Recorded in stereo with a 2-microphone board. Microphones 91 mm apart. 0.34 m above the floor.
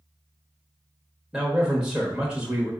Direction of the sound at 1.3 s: 10° right (ahead or behind).